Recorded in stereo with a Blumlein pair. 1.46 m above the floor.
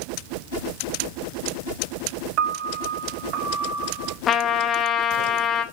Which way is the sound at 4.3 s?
25° left.